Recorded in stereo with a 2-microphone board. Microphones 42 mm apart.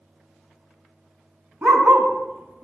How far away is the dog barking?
About 3 m.